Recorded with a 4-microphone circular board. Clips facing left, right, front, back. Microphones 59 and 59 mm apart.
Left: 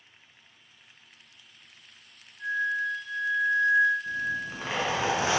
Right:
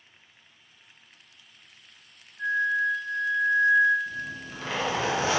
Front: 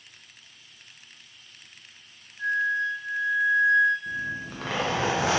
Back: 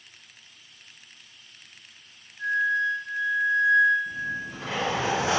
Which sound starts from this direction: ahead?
A zipper, at 4.1 s.